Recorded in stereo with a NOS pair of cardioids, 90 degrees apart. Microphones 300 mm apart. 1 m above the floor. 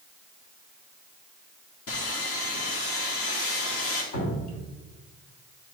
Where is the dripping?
60° left, 1.3 m.